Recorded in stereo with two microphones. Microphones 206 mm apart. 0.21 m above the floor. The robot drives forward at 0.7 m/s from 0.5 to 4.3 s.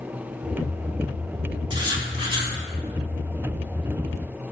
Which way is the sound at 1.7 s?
25° right (ahead or behind).